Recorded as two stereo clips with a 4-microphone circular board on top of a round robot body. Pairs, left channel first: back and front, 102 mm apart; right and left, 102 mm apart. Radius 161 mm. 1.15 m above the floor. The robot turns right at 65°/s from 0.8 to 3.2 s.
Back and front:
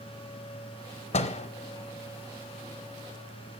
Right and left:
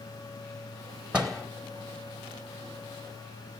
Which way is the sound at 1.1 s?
170° left.